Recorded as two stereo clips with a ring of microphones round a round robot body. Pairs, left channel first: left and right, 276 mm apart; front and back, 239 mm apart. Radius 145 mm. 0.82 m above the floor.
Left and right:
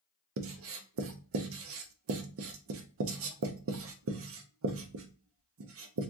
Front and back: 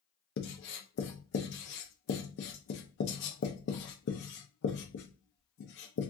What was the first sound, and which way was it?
Writing, 45° right.